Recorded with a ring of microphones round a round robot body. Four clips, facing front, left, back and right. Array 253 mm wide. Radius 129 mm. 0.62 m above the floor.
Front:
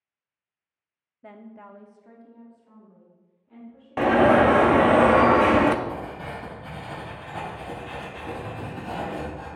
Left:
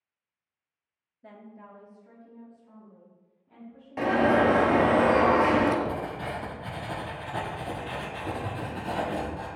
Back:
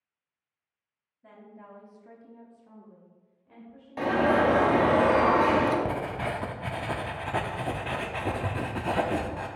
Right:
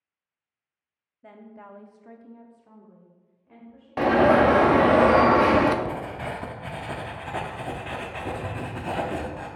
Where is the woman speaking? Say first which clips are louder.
Right 2 dB, front 5 dB; 10° right, 0.9 m; by 5.0 s 130° right, 4 m.